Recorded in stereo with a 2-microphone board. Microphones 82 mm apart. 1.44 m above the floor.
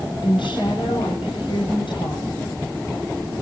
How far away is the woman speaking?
About 7.5 m.